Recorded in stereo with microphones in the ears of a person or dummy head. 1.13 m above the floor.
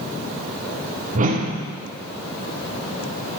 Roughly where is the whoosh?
Right.